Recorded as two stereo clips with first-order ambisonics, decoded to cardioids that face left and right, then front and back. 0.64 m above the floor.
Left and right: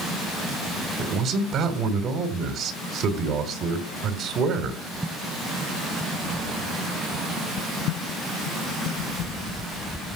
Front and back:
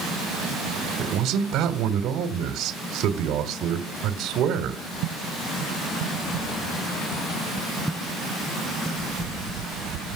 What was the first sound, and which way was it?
A man speaking, 140° right.